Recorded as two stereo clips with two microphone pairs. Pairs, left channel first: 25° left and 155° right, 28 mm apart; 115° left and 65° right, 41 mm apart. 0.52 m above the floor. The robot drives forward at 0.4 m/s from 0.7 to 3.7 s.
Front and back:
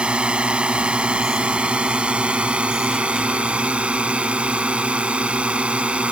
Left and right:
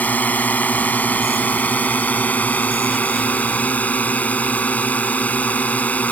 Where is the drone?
155° left; by 6.1 s 160° left.